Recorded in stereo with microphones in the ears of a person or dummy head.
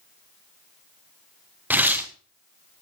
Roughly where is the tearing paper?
Centre.